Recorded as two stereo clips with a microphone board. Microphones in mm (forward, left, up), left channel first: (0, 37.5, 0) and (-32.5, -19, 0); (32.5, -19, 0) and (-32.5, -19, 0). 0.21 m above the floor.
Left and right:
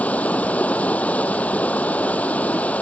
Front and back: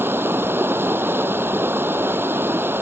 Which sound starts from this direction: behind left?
Running water, at 0.0 s.